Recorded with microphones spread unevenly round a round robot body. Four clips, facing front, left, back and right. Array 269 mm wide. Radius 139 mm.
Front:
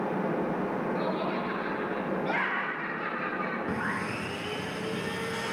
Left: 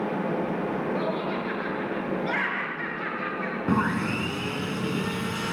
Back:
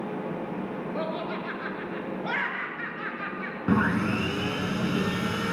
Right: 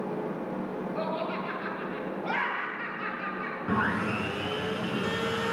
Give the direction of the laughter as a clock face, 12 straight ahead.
7 o'clock.